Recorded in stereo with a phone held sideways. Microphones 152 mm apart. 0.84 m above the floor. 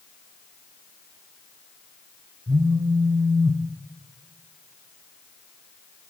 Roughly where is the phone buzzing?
Right.